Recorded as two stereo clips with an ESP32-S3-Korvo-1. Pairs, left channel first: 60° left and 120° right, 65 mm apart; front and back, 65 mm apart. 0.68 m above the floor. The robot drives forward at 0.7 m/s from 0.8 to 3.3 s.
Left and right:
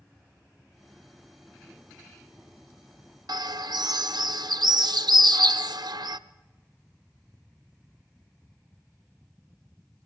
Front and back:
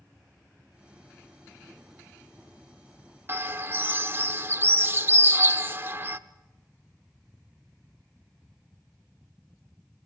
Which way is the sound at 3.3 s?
120° right.